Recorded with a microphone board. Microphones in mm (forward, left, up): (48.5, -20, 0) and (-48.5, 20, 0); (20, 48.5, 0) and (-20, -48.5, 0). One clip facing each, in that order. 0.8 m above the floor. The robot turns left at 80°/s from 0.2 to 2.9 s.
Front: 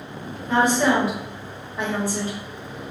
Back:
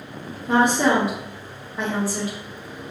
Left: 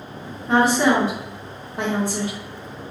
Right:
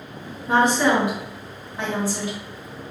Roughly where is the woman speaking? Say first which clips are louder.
Back 1 dB, left 1 dB; behind.